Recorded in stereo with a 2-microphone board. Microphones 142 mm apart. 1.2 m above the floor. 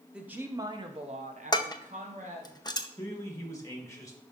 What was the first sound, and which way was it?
A woman speaking, 5° right (ahead or behind).